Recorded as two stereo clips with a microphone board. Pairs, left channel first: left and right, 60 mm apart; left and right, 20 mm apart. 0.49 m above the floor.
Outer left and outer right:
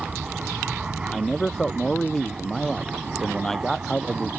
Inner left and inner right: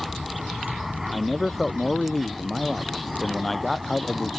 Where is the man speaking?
5° left (ahead or behind).